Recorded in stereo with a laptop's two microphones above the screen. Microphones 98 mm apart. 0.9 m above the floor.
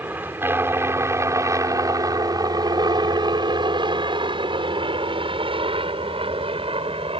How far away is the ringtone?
No ringtone in this recording.